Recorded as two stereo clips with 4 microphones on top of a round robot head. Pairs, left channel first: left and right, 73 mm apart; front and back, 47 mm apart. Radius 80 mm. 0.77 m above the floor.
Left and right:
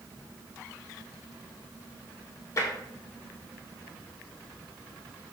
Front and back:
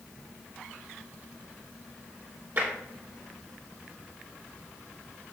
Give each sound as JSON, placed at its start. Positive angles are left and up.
{"t": 2.6, "sound": "tapping", "azimuth_deg": 140, "distance_m": 2.5}